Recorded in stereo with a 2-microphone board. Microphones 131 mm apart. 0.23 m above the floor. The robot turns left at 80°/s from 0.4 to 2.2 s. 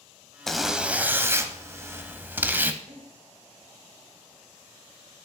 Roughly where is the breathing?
Right.